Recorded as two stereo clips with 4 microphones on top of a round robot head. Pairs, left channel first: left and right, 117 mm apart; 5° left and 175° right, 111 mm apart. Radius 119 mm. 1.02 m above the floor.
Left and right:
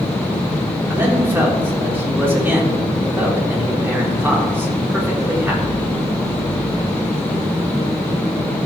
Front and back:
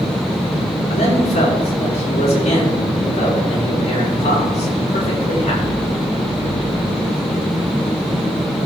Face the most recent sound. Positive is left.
turn(degrees=-15)